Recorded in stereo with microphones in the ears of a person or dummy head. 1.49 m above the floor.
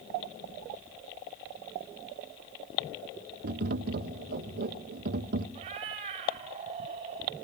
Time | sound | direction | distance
3.4 | tapping | 60° right (ahead or behind) | 0.7 m
5.5 | a cat meowing | 35° right (ahead or behind) | 1.5 m